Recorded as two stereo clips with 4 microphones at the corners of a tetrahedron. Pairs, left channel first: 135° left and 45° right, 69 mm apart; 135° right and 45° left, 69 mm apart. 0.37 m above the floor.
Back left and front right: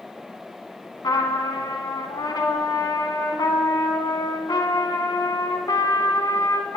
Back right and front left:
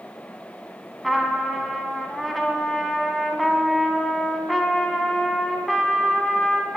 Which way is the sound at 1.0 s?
135° left.